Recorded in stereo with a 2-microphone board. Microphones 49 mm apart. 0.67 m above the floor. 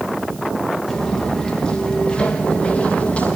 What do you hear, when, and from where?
0.9 s footsteps: 10° left (ahead or behind), 6 m; by 3.4 s 30° left (ahead or behind), 8 m